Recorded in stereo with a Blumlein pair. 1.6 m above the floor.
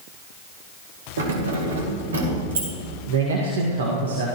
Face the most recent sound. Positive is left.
turn(degrees=-60)